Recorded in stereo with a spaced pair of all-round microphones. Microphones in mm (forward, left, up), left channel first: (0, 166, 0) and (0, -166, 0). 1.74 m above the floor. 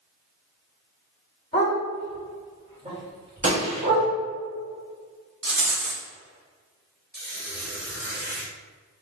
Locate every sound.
1.5 s a dog barking: 20° left (ahead or behind), 1.9 m; by 4.1 s 50° right (ahead or behind), 2 m
3.4 s a gunshot: 45° right (ahead or behind), 1.4 m
5.4 s a rattle: 70° right (ahead or behind), 0.9 m
7.1 s a squeak: 30° right (ahead or behind), 1.3 m